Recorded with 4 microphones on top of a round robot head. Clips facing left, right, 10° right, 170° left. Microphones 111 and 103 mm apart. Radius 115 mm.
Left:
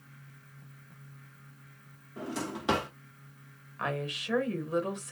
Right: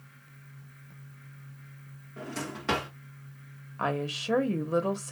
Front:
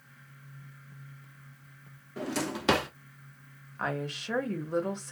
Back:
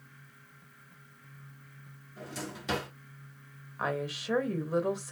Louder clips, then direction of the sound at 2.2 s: Left 1 dB, front 9 dB; 15° left.